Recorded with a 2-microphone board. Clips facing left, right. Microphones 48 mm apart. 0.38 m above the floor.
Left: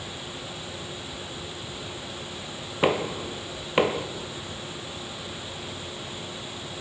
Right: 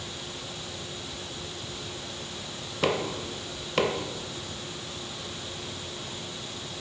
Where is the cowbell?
I don't hear a cowbell.